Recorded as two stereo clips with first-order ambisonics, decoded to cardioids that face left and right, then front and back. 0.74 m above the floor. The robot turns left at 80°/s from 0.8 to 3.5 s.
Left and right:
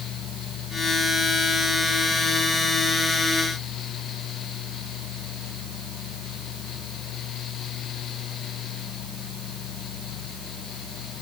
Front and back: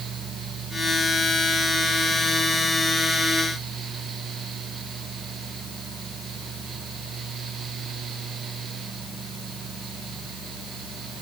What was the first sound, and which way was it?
Only background noise.